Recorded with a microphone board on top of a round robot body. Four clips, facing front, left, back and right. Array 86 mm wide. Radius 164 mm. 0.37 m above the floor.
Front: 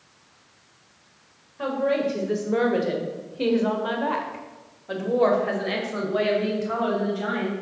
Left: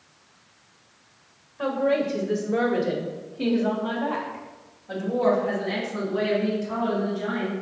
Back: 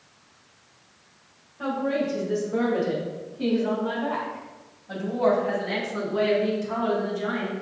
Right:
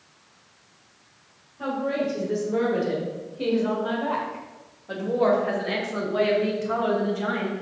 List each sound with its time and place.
1.6 s a woman speaking: 40° left, 2 m; by 7.5 s 50° right, 3 m